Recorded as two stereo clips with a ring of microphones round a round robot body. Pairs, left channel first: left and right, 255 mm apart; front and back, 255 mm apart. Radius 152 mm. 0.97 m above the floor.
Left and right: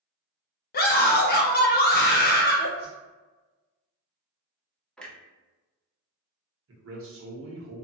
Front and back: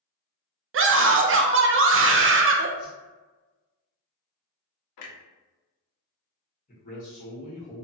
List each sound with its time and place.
0.7 s a scream: 145° left, 0.6 m
2.8 s a whoosh: 35° left, 1.6 m
5.0 s a clunk: 5° left, 0.6 m
6.7 s a man speaking: 60° right, 1.1 m